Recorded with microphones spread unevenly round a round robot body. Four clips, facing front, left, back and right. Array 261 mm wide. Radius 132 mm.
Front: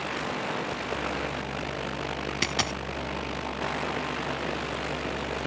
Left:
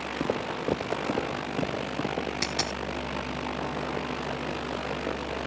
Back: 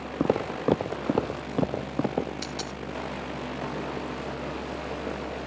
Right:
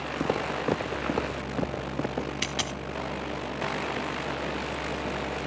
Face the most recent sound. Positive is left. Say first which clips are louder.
# left 1 dB, front 5 dB
turn(degrees=-5)